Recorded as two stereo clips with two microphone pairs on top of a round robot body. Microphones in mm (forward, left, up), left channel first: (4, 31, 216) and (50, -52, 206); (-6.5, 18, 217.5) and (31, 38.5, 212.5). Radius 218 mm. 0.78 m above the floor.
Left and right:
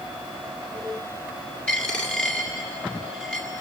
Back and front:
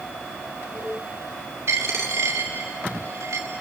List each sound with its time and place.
1.7 s a dropped coin: 40° left, 2 m